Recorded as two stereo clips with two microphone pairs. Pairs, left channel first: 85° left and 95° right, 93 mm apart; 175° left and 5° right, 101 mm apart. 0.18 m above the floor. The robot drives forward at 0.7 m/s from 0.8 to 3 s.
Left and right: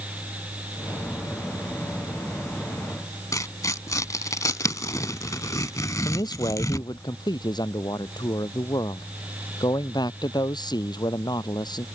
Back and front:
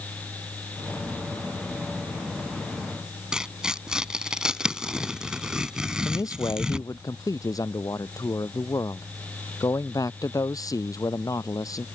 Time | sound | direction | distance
3.3 | tearing paper | 70° left | ?
6.0 | a man speaking | 120° left | ?